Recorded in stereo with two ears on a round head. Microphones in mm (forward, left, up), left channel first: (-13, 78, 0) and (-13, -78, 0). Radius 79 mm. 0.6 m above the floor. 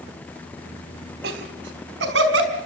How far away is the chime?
No chime in this recording.